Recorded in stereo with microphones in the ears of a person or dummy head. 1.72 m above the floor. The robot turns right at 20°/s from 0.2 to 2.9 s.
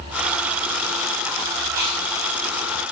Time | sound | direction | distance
1.7 | chewing | 15° right (ahead or behind) | 7.5 m